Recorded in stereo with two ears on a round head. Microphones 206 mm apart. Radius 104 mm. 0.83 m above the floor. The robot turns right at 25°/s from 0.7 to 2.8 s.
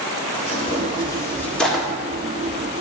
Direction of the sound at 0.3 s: 25° left (ahead or behind).